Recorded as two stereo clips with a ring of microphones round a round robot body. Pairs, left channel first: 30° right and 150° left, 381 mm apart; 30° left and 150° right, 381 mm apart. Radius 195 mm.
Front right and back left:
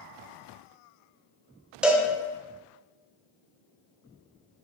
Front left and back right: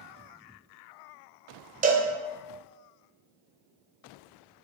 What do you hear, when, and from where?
1.8 s a cowbell: 125° right, 0.6 m